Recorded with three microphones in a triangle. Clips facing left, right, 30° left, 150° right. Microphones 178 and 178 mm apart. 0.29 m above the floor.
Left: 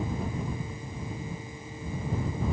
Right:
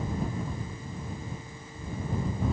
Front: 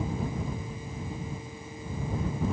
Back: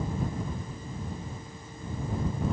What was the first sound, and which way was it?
Only background noise.